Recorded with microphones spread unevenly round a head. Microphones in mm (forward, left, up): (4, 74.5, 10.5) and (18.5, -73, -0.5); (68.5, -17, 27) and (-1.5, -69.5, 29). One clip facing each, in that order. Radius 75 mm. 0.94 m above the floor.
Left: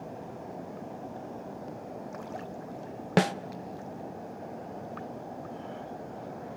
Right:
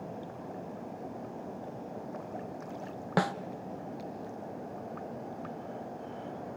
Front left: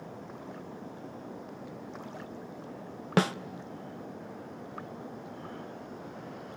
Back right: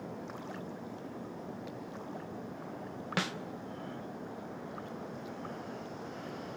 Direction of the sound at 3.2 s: 40° left.